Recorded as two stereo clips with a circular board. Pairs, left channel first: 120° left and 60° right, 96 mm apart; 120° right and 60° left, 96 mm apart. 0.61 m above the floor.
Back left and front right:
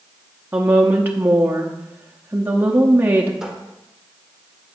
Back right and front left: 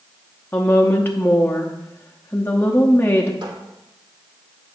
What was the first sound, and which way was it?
A woman speaking, 95° right.